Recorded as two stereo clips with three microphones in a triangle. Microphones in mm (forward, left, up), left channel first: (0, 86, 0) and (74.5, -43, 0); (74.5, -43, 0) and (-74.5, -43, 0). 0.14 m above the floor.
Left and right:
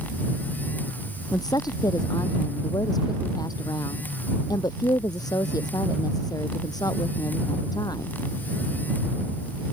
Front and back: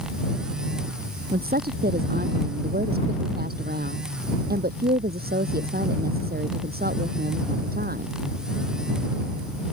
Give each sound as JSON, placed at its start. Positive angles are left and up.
{"t": 1.3, "sound": "a woman speaking", "azimuth_deg": -175}